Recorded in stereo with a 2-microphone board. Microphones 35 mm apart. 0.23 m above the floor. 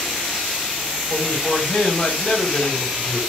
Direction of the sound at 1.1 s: 30° left (ahead or behind).